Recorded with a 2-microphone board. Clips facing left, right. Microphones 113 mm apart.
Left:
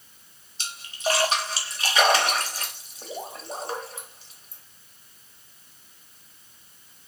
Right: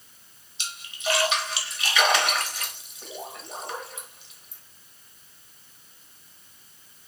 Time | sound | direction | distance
0.6 | a splash | 40° left (ahead or behind) | 1.3 m